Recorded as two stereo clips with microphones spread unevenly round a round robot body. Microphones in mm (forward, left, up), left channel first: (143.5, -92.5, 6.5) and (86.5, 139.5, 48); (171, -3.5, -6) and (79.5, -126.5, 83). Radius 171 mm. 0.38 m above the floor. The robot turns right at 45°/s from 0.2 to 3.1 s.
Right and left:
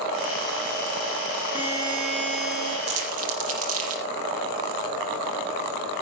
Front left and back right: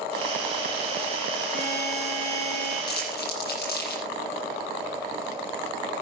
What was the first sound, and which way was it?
A buzzer, 35° left.